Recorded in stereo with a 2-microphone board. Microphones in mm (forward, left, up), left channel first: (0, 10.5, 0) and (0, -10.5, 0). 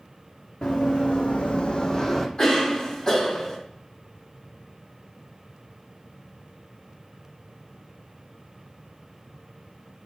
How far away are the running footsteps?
About 1.1 m.